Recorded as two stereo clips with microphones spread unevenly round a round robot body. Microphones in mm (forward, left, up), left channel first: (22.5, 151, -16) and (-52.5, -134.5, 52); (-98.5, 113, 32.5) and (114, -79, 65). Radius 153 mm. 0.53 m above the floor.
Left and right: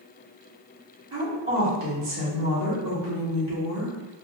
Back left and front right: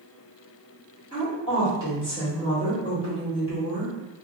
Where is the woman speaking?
155° right, 1.9 m.